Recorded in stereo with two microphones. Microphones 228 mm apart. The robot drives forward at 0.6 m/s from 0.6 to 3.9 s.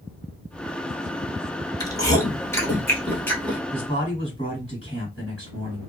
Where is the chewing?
15° left (ahead or behind), 0.9 m; by 3.6 s 10° left (ahead or behind), 1.9 m.